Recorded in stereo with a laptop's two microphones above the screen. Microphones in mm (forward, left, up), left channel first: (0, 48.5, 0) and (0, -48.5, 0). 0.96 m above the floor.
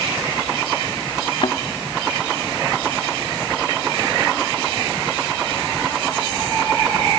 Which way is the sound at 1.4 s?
60° left (ahead or behind).